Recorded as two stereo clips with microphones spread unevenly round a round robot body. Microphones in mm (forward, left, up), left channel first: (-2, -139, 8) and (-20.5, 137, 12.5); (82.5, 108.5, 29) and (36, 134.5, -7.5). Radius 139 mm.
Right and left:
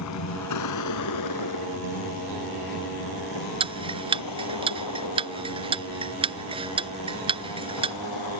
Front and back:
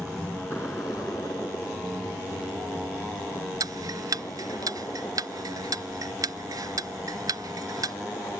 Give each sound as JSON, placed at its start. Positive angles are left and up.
{"t": 0.0, "sound": "a vehicle", "azimuth_deg": -120}
{"t": 3.6, "sound": "ticking", "azimuth_deg": 165}